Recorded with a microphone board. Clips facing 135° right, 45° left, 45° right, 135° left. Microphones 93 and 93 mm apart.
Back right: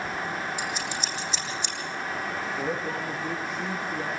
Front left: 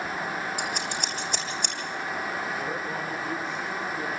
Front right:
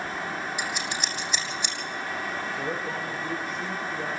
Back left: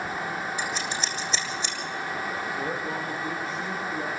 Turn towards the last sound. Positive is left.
turn(degrees=-170)